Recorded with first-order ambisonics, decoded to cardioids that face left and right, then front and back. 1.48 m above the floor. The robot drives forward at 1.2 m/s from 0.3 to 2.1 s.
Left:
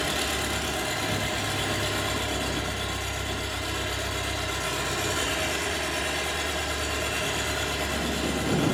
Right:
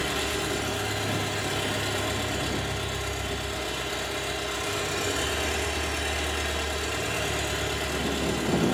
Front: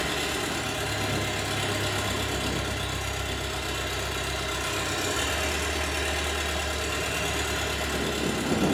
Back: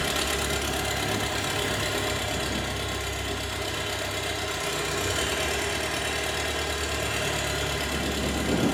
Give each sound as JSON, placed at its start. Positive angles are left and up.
{"t": 0.0, "sound": "an engine running", "azimuth_deg": 165, "distance_m": 1.3}